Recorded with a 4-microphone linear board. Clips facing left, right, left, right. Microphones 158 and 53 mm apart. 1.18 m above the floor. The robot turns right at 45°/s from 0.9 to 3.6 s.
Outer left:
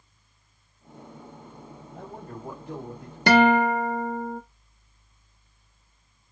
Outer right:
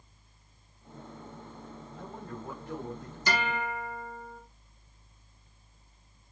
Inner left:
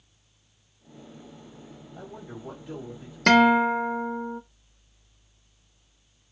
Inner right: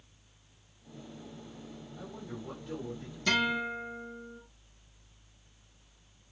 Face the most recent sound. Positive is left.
turn(degrees=55)  # may be behind; listen again after turning